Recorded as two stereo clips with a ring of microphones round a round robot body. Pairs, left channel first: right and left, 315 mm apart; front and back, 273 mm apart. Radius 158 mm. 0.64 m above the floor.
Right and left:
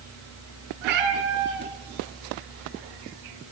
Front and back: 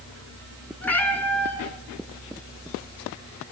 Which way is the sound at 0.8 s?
85° left.